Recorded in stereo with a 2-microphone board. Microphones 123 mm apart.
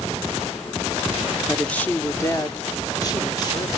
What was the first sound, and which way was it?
A woman speaking, centre (ahead or behind).